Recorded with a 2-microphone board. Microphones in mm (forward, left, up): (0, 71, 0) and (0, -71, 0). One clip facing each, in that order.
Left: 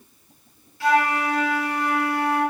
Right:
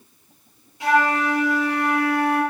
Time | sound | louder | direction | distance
0.8 | a flute | right 1 dB | 20° right (ahead or behind) | 6 m